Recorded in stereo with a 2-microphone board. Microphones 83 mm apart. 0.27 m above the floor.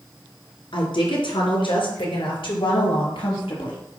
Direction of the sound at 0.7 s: 70° left (ahead or behind).